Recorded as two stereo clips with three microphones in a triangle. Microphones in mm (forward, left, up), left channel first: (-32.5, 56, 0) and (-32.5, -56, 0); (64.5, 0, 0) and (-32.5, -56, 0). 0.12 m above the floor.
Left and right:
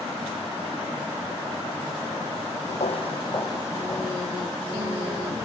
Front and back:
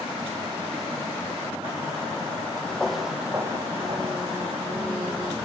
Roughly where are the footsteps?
Left.